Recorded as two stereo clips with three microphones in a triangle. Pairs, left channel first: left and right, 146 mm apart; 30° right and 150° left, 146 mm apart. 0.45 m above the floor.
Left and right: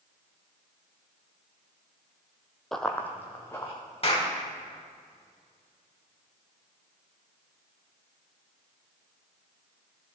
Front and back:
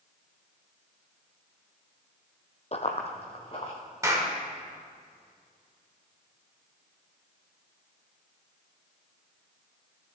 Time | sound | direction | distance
2.7 | running footsteps | 5° left | 0.8 m
4.0 | a clap | 90° left | 1.4 m